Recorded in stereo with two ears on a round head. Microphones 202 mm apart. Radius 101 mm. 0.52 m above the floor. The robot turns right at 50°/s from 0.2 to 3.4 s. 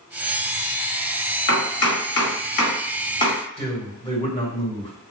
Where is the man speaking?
25° left (ahead or behind), 2.0 m.